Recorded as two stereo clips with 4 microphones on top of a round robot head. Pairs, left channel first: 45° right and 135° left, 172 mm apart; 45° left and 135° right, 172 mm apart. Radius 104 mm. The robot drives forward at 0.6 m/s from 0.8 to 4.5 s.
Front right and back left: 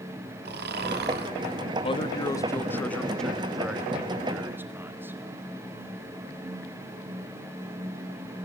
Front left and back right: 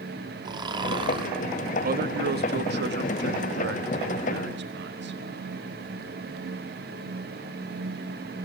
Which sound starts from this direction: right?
A man speaking, at 1.8 s.